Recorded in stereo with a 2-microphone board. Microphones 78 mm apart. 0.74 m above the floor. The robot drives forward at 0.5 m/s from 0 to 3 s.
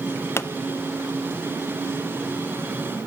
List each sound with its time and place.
0.4 s a pop: 35° left (ahead or behind), 0.7 m